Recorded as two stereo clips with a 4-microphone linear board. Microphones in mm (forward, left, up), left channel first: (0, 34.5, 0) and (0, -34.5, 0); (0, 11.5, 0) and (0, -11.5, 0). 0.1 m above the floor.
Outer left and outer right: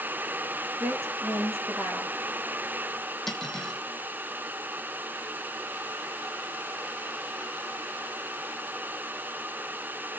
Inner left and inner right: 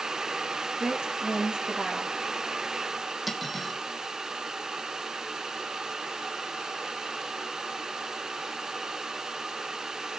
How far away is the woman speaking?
About 5.5 m.